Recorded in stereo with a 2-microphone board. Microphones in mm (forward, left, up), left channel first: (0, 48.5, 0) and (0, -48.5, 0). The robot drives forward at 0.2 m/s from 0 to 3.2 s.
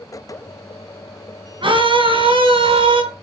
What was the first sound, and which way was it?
A scream, 65° right (ahead or behind).